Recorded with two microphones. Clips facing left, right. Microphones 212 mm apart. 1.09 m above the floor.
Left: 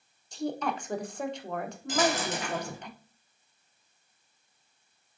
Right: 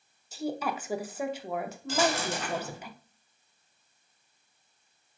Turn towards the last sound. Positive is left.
turn(degrees=20)  # may be behind; listen again after turning